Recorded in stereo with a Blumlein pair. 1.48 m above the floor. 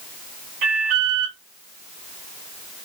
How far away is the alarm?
About 2 m.